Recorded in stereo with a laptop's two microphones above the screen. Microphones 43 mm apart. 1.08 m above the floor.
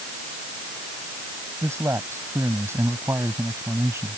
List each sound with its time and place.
1.6 s a man speaking: 80° right